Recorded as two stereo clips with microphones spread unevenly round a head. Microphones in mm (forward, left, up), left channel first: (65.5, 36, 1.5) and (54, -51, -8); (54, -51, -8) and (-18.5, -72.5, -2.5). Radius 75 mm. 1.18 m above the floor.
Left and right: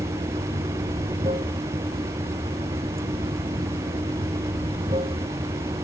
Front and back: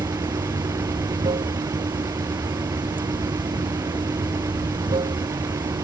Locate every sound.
0.0 s running water: 150° right